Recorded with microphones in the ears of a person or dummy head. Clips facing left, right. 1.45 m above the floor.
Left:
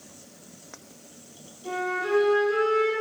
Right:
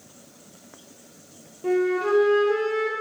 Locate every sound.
1.6 s a flute: 75° right (ahead or behind), 0.9 m